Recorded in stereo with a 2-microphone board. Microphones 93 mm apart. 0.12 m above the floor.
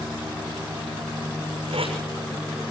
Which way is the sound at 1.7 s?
75° right (ahead or behind).